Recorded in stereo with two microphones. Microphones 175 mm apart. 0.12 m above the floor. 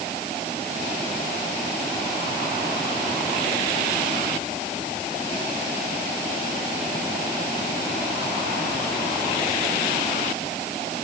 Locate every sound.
Only background noise.